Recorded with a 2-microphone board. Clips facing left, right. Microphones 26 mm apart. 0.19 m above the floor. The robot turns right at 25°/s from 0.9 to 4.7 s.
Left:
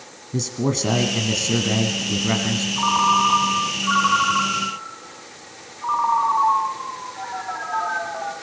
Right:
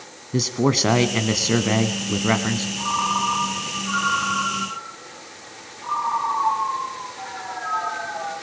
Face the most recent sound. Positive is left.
turn(degrees=135)